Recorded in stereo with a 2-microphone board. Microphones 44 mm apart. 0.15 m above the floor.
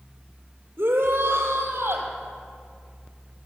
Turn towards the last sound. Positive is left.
turn(degrees=-70)  # may be behind; listen again after turning